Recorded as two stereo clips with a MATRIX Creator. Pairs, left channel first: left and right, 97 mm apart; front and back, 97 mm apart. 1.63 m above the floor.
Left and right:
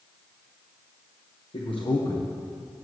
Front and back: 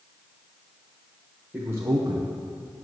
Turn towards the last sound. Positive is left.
turn(degrees=-155)